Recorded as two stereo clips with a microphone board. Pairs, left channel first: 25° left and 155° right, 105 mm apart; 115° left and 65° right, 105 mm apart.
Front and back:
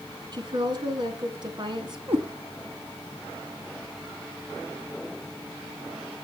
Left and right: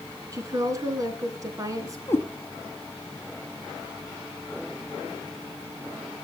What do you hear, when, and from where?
0.3 s a woman speaking: 120° right, 3 m
2.1 s a cat meowing: straight behind, 2.5 m